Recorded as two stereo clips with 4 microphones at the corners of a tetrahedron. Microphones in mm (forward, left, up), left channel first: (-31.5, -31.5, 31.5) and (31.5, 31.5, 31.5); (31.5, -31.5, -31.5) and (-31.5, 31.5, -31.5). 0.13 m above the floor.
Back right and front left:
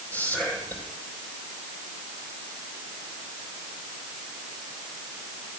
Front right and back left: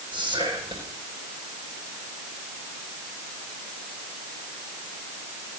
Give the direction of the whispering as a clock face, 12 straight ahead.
7 o'clock.